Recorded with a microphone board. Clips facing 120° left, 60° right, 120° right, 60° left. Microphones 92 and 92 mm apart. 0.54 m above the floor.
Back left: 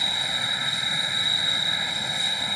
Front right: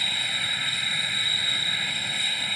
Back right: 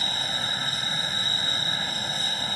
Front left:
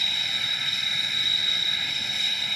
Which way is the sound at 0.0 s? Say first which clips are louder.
Back left 2 dB, back right 4 dB; 170° right.